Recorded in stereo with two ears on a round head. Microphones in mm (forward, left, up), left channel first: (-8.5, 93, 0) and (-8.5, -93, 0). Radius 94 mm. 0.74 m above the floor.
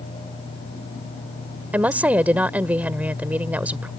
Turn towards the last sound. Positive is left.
turn(degrees=-10)  # may be behind; listen again after turning